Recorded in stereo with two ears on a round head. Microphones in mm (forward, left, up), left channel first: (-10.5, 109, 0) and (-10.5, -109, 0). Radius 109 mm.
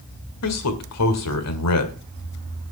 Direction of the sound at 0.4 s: 75° left (ahead or behind).